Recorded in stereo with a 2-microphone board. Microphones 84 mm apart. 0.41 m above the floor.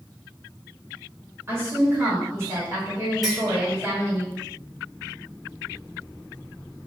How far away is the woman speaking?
About 1.9 m.